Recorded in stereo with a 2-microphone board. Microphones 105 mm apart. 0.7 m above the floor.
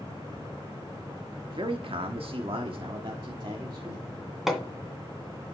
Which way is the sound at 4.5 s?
5° right (ahead or behind).